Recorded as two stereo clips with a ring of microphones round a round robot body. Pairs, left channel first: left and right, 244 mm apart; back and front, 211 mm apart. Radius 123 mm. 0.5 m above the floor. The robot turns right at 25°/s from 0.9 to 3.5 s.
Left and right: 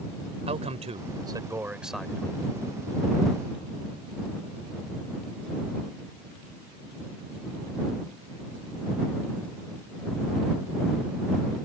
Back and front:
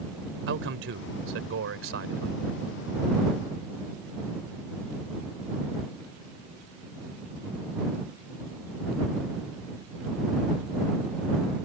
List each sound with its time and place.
0.5 s a man speaking: 25° right; by 2.4 s 10° left